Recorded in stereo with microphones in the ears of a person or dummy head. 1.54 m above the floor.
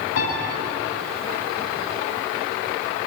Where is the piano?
70° left (ahead or behind), 7.5 m.